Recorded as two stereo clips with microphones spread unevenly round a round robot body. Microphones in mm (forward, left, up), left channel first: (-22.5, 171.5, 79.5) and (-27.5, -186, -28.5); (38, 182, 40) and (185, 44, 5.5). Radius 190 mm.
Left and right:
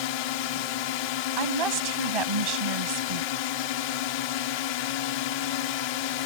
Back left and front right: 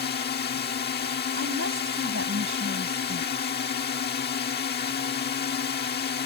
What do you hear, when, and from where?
0.0 s a drone: 100° left
1.4 s a woman speaking: 100° right